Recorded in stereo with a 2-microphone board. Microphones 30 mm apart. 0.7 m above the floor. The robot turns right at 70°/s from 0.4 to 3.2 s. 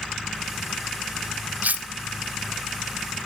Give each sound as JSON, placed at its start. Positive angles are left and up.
{"t": 1.6, "sound": "cutlery clinking", "side_deg": -70, "distance_m": 0.8}